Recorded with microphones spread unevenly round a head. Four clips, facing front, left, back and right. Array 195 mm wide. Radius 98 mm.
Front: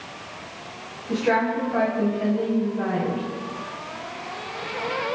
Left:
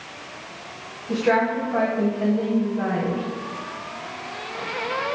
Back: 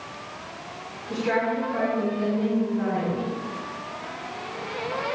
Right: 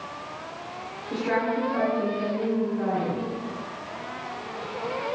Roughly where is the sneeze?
No sneeze in this recording.